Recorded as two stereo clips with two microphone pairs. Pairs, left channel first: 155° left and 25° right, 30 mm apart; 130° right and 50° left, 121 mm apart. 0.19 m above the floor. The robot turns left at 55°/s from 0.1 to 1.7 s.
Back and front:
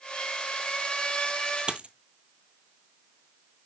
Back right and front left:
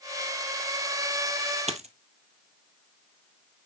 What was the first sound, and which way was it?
A dropped coin, 30° left.